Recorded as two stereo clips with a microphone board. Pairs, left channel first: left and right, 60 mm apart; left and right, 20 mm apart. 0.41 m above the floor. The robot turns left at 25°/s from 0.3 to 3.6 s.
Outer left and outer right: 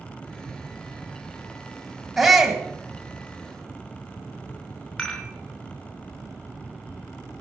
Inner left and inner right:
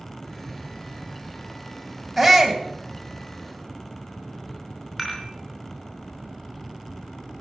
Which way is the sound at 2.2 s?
5° right (ahead or behind).